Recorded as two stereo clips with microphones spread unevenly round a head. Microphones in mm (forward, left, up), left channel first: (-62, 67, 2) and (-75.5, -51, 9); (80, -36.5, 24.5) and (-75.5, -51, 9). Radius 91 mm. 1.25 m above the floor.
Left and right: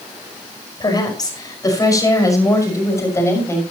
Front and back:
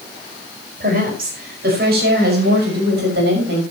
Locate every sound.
0.8 s a woman speaking: 140° left, 5.5 m; by 3.6 s 150° left, 6.5 m